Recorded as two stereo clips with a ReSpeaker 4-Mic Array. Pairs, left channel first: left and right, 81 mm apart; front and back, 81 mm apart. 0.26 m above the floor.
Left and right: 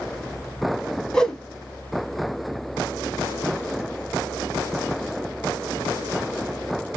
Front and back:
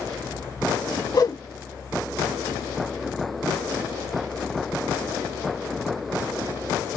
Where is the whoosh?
10° left, 1.1 m.